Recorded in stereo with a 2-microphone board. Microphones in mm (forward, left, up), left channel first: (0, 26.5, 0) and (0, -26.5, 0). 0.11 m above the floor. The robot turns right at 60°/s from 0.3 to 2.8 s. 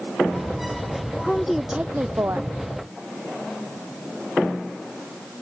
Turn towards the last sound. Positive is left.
turn(degrees=-100)